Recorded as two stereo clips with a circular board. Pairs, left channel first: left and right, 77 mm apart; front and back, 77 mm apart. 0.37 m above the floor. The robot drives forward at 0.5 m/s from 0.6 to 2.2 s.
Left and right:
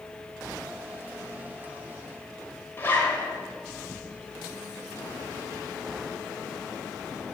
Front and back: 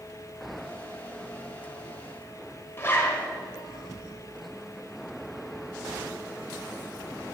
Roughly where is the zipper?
Ahead left.